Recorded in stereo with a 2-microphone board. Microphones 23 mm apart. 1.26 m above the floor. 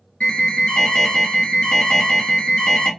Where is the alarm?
55° left (ahead or behind), 2 m.